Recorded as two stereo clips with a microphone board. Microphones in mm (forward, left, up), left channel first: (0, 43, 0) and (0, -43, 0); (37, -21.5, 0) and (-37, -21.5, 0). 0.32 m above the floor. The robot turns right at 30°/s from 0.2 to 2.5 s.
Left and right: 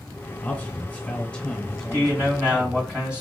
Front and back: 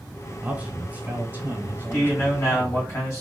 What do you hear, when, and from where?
0.4 s a man speaking: 125° left, 0.9 m; by 2.9 s 170° right, 0.9 m
1.9 s a man speaking: 40° right, 2 m; by 3.2 s 20° right, 2 m